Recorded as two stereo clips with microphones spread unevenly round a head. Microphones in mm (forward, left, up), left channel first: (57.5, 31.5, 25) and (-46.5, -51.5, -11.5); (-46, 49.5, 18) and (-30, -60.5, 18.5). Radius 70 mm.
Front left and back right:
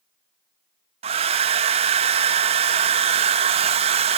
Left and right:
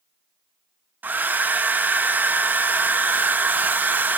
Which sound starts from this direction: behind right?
A hair dryer, at 1.0 s.